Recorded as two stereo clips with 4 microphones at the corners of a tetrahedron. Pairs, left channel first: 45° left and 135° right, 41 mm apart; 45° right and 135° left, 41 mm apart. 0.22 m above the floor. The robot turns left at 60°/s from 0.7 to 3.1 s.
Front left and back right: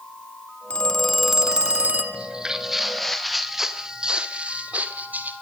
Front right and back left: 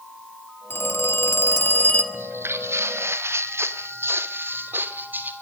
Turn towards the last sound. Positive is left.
turn(degrees=180)